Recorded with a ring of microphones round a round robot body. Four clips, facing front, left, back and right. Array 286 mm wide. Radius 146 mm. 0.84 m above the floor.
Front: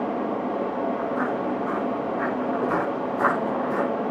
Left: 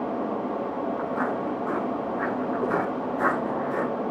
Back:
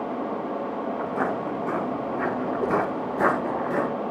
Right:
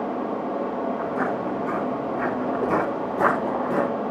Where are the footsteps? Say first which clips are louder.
Right 2 dB, front 1 dB; 140° right, 8.5 m; by 3.9 s 115° right, 7.5 m.